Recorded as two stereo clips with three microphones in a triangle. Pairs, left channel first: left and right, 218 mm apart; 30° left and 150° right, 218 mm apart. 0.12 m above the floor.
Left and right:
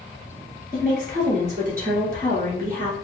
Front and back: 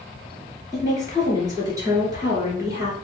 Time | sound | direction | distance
0.7 | a woman speaking | 85° right | 2.0 m